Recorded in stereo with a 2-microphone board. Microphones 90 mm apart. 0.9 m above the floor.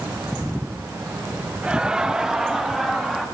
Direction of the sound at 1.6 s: 15° right (ahead or behind).